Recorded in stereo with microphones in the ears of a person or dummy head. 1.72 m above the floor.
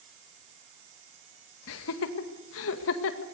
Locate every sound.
1.7 s laughter: 80° left, 2 m